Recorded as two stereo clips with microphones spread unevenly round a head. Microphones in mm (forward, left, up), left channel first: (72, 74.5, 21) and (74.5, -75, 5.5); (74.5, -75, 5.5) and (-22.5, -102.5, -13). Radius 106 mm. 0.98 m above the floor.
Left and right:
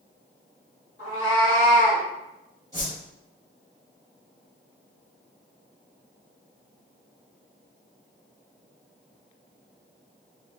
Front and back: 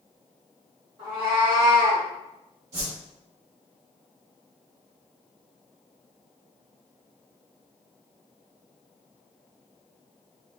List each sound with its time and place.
1.0 s a cat meowing: 125° left, 1.0 m; by 2.0 s 130° right, 0.6 m
2.7 s a whoosh: 170° left, 1.3 m